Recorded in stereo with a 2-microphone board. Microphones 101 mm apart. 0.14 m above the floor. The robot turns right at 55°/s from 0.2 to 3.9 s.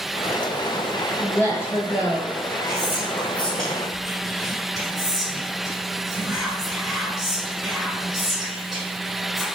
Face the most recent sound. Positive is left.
turn(degrees=-5)  # may be behind; listen again after turning